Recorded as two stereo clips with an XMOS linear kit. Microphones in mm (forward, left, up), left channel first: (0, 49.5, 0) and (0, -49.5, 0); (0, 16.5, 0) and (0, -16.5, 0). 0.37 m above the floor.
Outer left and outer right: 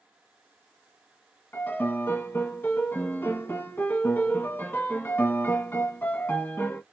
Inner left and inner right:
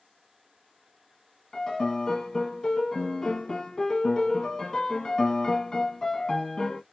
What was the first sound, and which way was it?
A piano, 20° left (ahead or behind).